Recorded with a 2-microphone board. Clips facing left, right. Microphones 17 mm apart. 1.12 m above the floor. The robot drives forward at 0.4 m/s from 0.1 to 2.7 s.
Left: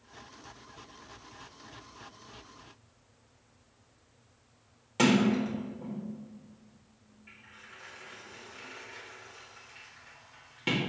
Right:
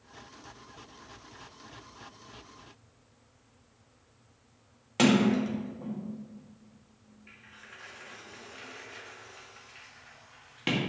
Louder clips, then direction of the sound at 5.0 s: Right 1 dB; 15° right (ahead or behind).